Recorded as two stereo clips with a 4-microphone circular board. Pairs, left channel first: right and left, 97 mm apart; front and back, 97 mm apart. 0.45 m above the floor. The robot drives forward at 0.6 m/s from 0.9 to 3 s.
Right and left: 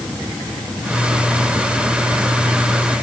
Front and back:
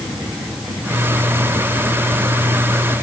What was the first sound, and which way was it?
Only background noise.